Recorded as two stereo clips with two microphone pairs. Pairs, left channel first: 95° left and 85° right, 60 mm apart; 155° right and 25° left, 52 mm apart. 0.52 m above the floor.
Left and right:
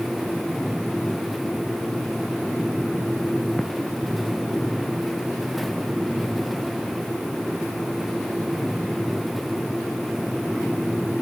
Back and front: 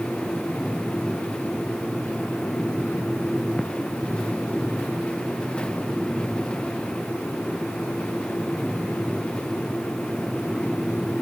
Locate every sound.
Only background noise.